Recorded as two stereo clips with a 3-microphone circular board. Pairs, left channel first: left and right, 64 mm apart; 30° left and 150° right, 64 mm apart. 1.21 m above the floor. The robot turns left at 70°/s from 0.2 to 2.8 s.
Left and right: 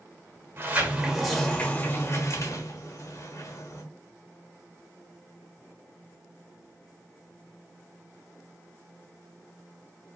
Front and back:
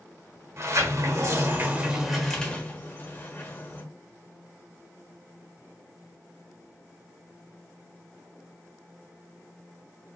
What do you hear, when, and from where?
0.6 s a sliding door: 130° right, 1.3 m; by 3.8 s 75° left, 1.3 m